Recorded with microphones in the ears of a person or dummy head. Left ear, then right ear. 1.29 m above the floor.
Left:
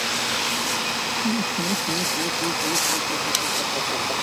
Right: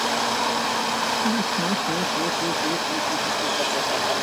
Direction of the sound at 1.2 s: 25° right (ahead or behind).